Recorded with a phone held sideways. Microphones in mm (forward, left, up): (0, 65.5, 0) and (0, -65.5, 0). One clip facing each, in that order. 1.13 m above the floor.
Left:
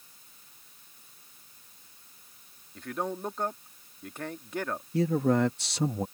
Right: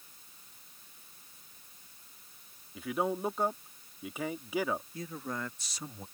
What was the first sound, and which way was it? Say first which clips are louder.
A man speaking: right 1 dB; 5° right (ahead or behind).